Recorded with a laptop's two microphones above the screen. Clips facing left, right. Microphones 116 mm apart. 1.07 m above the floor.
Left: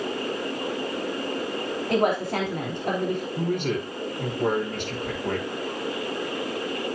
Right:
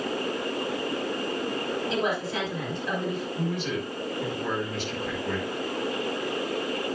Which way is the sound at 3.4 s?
55° left (ahead or behind).